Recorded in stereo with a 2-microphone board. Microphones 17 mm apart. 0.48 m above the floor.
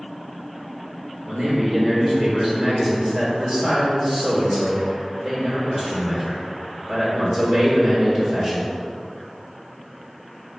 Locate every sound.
1.3 s a man speaking: 20° right (ahead or behind), 1.2 m